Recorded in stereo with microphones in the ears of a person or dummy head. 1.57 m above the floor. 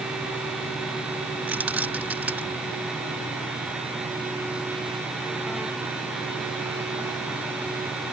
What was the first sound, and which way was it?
Keys jangling, 5° right (ahead or behind).